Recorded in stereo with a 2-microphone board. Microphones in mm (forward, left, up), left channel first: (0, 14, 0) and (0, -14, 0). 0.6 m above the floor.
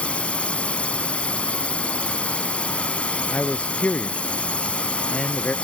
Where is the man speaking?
45° left (ahead or behind).